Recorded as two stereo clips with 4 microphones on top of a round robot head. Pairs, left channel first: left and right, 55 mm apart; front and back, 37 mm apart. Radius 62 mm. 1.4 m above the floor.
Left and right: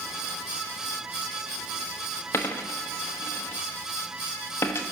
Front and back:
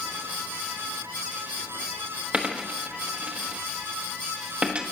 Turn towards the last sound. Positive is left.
turn(degrees=130)